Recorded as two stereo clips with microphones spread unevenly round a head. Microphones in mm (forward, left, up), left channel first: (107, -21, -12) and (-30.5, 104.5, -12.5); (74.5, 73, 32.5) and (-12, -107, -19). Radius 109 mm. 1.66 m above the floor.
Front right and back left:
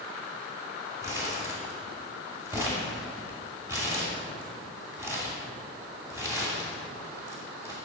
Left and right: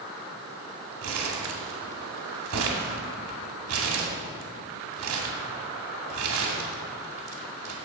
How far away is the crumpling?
About 2.5 m.